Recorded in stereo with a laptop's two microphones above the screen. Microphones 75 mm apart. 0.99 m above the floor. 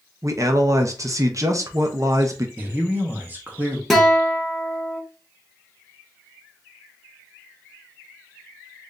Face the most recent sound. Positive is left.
turn(degrees=5)  # may be behind; listen again after turning